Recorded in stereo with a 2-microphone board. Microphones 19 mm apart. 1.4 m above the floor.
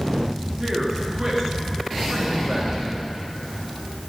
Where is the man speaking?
25° right (ahead or behind), 3 m.